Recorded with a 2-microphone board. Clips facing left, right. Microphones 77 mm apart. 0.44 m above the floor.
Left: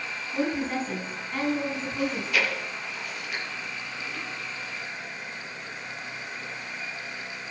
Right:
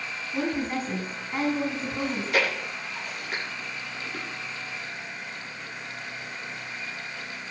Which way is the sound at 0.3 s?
5° right (ahead or behind).